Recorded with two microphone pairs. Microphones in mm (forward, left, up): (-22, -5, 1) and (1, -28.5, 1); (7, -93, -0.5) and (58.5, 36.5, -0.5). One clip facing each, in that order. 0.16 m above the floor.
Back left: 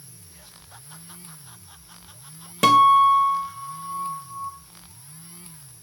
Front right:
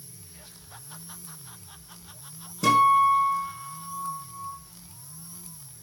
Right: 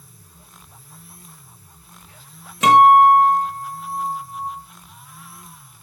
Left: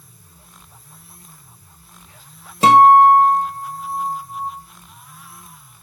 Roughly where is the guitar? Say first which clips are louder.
Back left 4 dB, left 2 dB; behind left.